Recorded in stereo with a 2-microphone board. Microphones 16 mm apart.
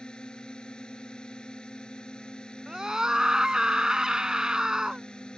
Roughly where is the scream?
Right.